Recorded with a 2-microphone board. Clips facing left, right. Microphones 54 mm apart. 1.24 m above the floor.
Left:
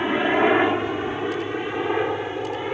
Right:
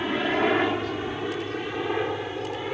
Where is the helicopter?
20° left (ahead or behind); by 2.7 s 15° left (ahead or behind).